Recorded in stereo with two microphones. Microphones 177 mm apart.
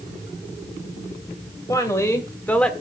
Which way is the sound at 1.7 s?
20° left (ahead or behind).